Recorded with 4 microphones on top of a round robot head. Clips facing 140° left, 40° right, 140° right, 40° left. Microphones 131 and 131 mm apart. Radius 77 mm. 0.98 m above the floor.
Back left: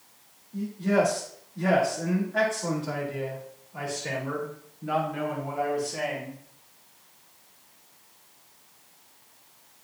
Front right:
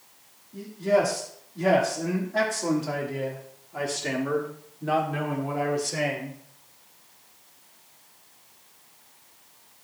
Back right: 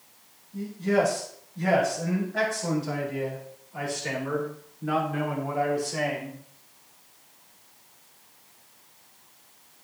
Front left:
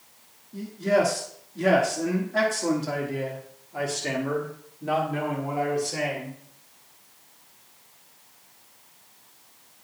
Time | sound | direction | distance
0.5 | a man speaking | 45° left | 2 m